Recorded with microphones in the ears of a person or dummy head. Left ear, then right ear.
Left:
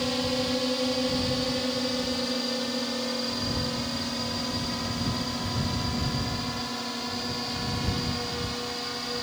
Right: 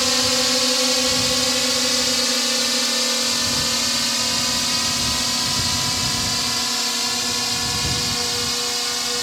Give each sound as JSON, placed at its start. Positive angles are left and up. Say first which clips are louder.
{"t": 0.0, "sound": "a drone", "louder": "right 9 dB", "side_deg": -60}